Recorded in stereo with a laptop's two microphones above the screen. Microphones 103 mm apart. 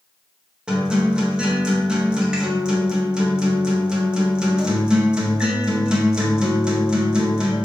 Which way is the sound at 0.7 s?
10° right (ahead or behind).